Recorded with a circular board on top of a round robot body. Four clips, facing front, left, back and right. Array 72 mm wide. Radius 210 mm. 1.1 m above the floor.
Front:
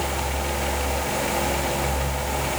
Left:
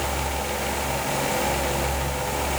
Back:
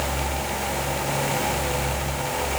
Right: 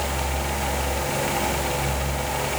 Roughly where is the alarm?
I don't hear an alarm.